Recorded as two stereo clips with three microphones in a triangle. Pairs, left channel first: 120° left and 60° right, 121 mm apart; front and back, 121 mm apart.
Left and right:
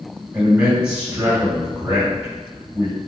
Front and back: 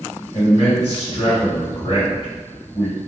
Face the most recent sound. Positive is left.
turn(degrees=15)